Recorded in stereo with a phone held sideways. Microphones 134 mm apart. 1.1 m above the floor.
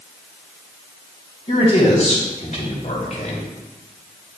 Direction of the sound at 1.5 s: 55° left (ahead or behind).